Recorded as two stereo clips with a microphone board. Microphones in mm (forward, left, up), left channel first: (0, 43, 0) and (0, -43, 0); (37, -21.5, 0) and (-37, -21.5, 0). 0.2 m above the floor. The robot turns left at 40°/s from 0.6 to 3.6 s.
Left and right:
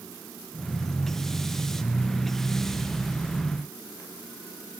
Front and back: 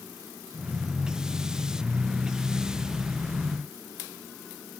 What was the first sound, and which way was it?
Only background noise.